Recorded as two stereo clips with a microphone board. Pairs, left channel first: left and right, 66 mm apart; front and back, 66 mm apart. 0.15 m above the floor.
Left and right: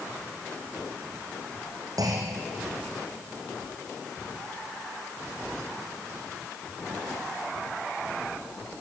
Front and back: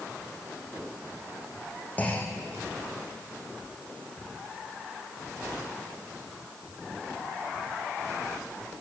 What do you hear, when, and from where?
2.0 s a clunk: 65° right, 3 m